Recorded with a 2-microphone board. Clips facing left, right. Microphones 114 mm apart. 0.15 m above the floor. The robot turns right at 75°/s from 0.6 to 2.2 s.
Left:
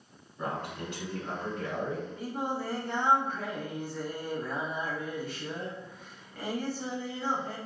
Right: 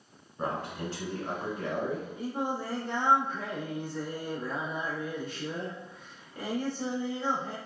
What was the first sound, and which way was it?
A man speaking, 120° right.